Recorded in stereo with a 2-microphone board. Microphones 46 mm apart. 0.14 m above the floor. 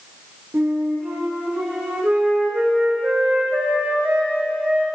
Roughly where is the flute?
Right.